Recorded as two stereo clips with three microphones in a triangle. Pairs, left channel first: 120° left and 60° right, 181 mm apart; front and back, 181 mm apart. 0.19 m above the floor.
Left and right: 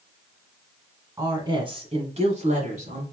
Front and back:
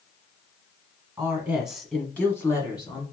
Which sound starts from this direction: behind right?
A woman speaking, at 1.2 s.